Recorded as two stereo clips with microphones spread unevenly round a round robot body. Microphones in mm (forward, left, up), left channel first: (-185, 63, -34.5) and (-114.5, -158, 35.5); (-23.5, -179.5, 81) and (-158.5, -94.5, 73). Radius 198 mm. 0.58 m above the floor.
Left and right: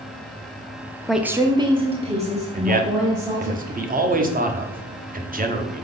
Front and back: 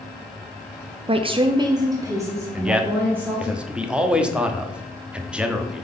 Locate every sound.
1.1 s a woman speaking: 175° left, 0.7 m; by 3.5 s 135° right, 2.5 m
2.5 s a man speaking: 130° right, 1.1 m